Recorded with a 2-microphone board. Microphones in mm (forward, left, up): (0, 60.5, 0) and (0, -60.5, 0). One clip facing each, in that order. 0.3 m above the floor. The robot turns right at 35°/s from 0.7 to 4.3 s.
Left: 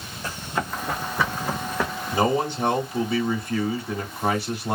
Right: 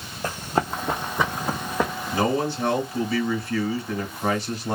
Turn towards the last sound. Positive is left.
turn(degrees=10)  # may be behind; listen again after turning